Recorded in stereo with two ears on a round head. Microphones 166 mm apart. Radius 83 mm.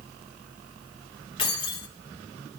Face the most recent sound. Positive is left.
turn(degrees=30)  # may be behind; listen again after turning